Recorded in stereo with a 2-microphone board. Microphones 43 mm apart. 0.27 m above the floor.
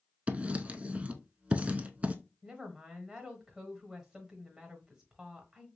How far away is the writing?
About 0.5 m.